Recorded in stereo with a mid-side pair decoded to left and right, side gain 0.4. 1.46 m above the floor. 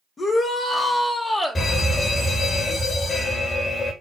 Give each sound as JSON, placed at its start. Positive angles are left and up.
{"t": 0.2, "sound": "a shout", "azimuth_deg": 45, "distance_m": 2.5}
{"t": 1.6, "sound": "a fire alarm", "azimuth_deg": 40, "distance_m": 4.5}